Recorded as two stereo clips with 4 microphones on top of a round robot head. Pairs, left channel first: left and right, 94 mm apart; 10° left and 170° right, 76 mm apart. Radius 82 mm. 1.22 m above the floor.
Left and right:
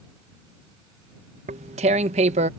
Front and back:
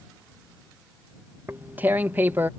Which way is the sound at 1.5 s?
95° right.